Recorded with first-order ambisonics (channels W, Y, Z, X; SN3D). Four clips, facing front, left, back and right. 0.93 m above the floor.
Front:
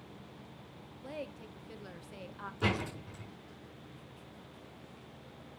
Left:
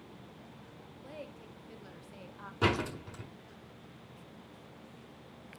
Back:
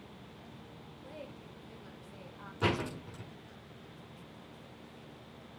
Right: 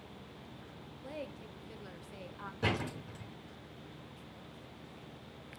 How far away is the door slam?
About 6 m.